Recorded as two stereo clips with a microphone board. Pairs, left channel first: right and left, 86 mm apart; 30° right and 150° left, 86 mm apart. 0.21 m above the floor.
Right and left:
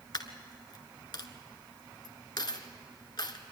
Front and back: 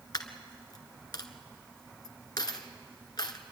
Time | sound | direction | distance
0.1 | a dropped coin | 65° right | 1.4 m